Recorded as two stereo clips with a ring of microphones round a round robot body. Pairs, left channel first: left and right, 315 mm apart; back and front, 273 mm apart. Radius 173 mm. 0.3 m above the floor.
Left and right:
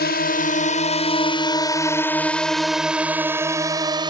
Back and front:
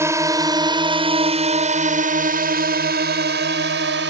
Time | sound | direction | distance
0.0 | a drone | 70° left | ?